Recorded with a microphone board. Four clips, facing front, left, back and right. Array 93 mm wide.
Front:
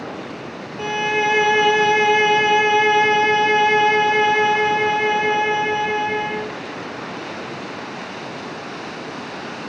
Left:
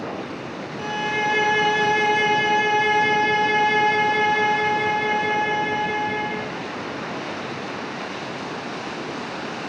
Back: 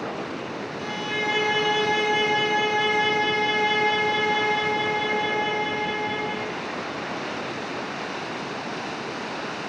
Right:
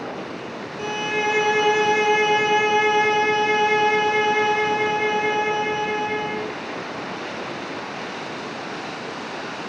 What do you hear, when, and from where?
0.8 s a violin: 5° right, 0.9 m